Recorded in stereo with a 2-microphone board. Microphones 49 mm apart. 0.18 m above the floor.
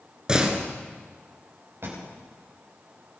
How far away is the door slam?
About 2.0 m.